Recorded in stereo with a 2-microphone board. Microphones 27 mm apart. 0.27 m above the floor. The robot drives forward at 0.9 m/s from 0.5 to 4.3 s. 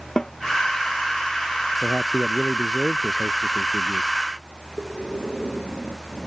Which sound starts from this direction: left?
A snare drum, at 0.2 s.